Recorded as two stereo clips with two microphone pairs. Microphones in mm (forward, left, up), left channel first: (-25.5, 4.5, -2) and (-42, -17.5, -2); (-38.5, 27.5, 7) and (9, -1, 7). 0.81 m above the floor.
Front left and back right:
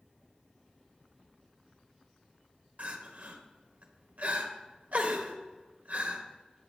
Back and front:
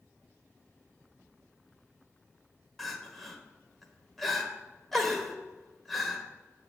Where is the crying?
125° right, 1.0 m.